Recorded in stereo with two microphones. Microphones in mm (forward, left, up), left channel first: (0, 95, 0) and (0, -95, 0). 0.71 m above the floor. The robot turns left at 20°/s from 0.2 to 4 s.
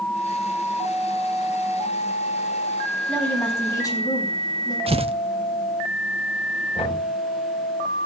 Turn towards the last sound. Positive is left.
turn(degrees=35)  # may be behind; listen again after turning